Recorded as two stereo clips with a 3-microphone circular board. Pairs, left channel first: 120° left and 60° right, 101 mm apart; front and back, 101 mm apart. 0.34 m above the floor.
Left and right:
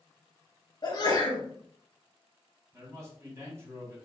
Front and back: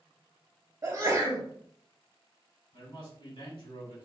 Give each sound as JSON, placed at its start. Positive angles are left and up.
{"t": 0.8, "sound": "a sneeze", "azimuth_deg": 130, "distance_m": 1.8}
{"t": 2.7, "sound": "a man speaking", "azimuth_deg": -5, "distance_m": 2.0}